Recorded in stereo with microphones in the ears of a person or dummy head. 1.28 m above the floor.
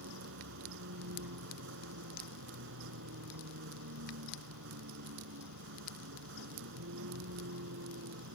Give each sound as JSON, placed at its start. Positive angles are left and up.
{"t": 0.0, "sound": "a vehicle", "side_deg": -70}